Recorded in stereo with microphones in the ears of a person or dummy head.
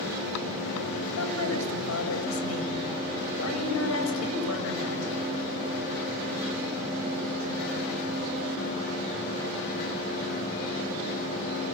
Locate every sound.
1.2 s a woman speaking: 85° left, 8 m